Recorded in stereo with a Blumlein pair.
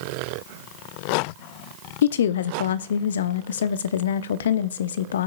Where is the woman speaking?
60° left, 0.7 m.